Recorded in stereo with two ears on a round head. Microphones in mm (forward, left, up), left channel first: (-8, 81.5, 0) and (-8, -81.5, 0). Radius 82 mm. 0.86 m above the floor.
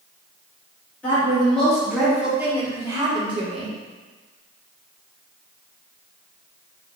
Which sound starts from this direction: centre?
A woman speaking, at 1.0 s.